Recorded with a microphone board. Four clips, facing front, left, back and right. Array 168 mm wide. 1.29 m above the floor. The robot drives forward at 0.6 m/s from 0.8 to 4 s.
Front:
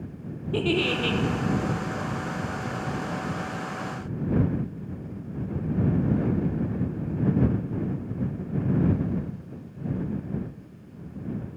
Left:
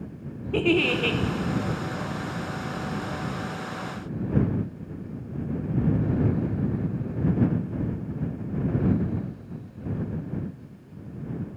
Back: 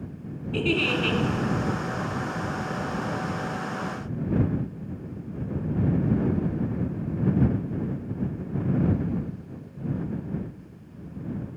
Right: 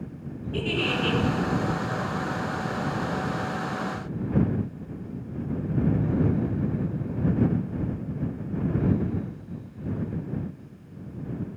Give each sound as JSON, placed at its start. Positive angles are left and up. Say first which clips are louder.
{"t": 0.5, "sound": "a giggle", "louder": "left 5 dB, even", "azimuth_deg": 65, "distance_m": 1.0}